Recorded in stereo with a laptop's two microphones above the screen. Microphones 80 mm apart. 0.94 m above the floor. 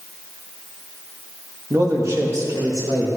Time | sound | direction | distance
1.7 | a man speaking | 40° right (ahead or behind) | 1.3 m